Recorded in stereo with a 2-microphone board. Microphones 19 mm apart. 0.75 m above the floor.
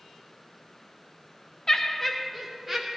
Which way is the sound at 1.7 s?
25° left (ahead or behind).